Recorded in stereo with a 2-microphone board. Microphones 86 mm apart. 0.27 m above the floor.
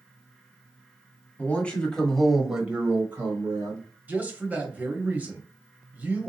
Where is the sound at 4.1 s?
20° right (ahead or behind), 0.9 m.